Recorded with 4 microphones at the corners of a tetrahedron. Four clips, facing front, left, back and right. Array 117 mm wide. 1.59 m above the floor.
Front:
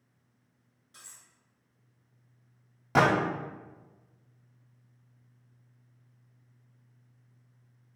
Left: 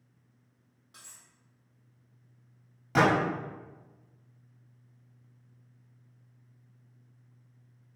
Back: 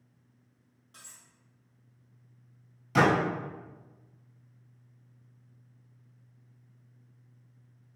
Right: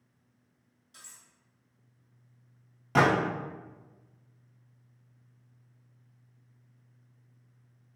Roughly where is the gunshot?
Ahead.